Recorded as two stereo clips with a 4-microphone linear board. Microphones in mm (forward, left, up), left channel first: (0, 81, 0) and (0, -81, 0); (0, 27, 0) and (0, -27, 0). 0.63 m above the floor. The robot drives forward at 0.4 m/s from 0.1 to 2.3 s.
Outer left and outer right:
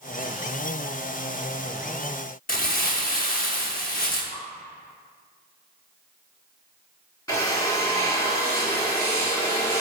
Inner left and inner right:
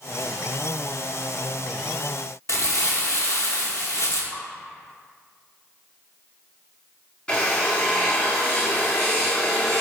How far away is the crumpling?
About 0.7 m.